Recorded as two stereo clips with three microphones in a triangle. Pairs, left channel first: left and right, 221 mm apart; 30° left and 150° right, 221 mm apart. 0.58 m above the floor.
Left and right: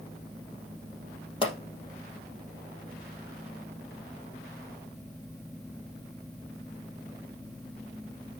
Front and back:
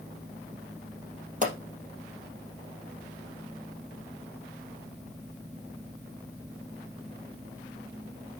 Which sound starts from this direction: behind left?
A pop, at 1.4 s.